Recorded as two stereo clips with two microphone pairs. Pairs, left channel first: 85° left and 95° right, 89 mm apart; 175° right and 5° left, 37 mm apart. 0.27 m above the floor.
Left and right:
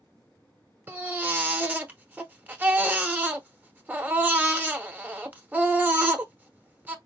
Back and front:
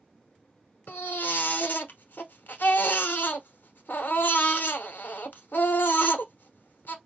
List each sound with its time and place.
0.9 s a baby crying: 160° right, 0.8 m